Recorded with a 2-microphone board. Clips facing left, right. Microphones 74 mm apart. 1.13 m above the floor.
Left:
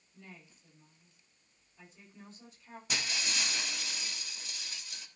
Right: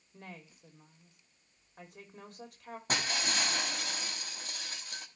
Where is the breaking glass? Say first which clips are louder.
Right 4 dB; 50° right (ahead or behind), 1.6 m.